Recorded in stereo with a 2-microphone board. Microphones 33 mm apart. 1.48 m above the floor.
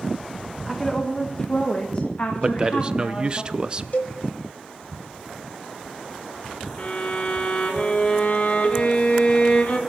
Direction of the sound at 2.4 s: 30° right (ahead or behind).